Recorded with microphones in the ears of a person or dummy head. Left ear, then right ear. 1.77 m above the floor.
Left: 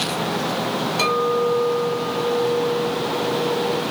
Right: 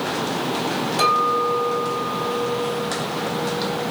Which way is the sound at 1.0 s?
50° right (ahead or behind).